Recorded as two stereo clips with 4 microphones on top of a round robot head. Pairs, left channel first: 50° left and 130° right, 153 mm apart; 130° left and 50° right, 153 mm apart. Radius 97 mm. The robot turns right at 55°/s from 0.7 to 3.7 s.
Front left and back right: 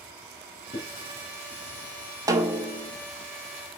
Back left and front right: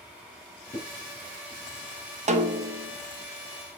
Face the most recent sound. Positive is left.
turn(degrees=5)